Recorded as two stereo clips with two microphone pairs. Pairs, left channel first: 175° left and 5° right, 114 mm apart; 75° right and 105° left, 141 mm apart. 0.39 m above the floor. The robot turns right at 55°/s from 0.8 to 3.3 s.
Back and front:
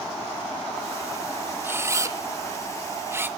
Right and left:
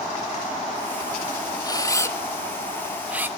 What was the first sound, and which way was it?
A camera shutter, 50° right.